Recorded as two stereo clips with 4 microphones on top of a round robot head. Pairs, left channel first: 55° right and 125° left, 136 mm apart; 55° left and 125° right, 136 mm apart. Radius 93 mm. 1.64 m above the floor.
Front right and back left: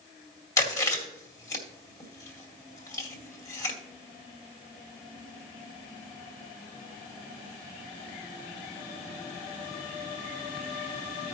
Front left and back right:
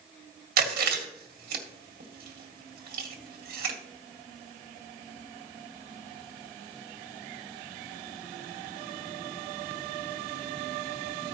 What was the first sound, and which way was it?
Chewing, 120° right.